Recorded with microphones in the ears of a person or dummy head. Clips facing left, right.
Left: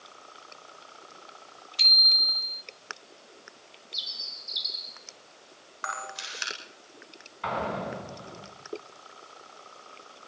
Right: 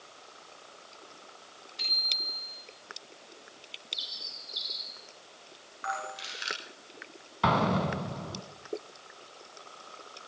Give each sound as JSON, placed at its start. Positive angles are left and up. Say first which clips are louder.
{"t": 1.8, "sound": "a bicycle bell", "louder": "left 3 dB", "side_deg": 45, "distance_m": 4.5}
{"t": 3.9, "sound": "a bird", "louder": "even", "side_deg": 30, "distance_m": 2.0}
{"t": 5.8, "sound": "a camera shutter", "louder": "right 3 dB", "side_deg": 70, "distance_m": 9.5}
{"t": 7.4, "sound": "an explosion", "louder": "right 4 dB", "side_deg": -75, "distance_m": 5.0}